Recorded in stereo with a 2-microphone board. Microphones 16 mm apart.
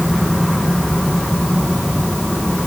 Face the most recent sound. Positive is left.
No sound to turn to.